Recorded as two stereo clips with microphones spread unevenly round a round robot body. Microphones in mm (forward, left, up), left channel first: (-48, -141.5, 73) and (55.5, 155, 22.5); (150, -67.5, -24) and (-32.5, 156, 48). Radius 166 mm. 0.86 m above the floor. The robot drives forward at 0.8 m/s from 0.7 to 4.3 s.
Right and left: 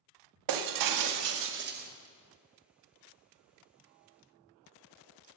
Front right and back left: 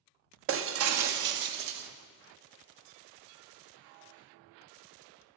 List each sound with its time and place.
0.5 s breaking glass: 85° left, 0.9 m; by 1.9 s 130° left, 1.3 m